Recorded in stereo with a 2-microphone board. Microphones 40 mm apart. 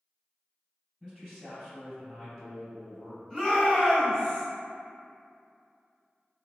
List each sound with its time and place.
1.0 s a man speaking: 15° left (ahead or behind), 1.6 m
3.3 s a shout: 10° left (ahead or behind), 1.7 m